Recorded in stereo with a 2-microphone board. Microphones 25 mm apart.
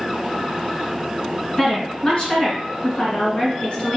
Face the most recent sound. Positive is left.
turn(degrees=45)  # may be behind; listen again after turning